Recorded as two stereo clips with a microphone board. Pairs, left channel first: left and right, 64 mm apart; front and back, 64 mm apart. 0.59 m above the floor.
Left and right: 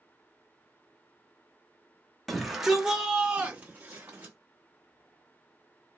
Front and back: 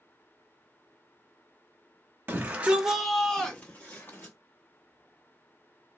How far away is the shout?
About 0.8 m.